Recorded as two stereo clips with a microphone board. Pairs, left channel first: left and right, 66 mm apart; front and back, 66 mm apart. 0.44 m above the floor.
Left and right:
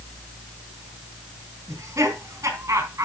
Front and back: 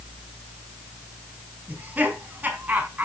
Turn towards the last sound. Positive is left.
turn(degrees=-115)